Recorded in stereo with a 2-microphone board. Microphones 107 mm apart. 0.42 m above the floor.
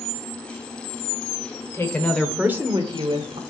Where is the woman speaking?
25° left (ahead or behind), 1.3 m; by 3.4 s 60° right (ahead or behind), 1.5 m.